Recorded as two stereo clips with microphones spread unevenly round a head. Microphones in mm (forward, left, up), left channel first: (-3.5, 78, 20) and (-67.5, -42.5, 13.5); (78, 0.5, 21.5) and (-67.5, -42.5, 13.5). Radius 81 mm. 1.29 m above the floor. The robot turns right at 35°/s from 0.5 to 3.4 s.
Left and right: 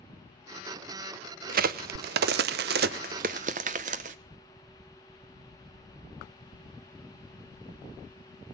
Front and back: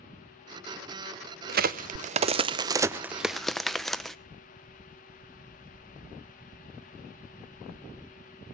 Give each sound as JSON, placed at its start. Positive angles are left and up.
{"t": 1.5, "sound": "a crack", "azimuth_deg": -140, "distance_m": 0.7}